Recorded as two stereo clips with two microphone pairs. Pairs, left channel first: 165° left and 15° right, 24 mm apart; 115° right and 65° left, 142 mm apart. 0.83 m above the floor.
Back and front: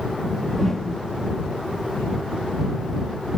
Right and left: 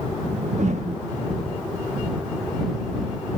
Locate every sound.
0.2 s a whoosh: 90° left